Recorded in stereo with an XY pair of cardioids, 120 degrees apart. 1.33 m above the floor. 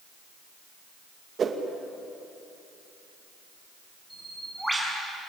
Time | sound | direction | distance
1.4 | a whoosh | 40° right | 2 m
4.1 | a bird | 5° right | 6 m